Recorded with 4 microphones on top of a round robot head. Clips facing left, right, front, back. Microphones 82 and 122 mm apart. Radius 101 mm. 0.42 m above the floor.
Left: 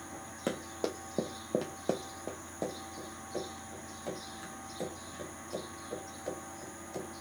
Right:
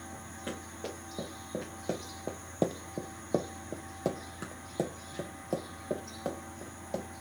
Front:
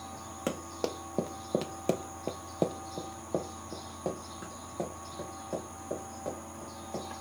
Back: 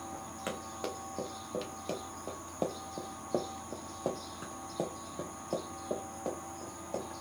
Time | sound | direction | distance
0.5 | running footsteps | 55° left | 1.2 m